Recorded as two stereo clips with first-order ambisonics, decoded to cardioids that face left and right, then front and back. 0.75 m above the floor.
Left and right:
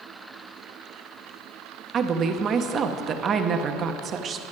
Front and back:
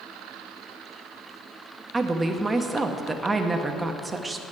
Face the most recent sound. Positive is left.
turn(degrees=-110)